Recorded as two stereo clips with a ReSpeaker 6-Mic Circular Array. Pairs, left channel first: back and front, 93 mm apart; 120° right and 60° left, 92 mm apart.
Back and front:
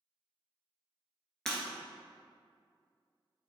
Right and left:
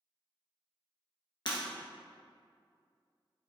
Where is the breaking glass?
95° right, 1.4 m.